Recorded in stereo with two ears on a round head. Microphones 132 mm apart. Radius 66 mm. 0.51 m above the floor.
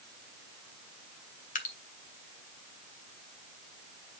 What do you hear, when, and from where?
1.6 s dripping: 55° left (ahead or behind), 1.5 m